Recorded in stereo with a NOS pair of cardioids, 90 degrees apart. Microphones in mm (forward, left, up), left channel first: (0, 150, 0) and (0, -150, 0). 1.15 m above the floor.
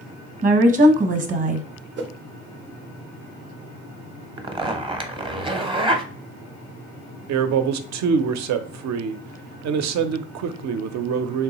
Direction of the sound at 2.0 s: 40° right.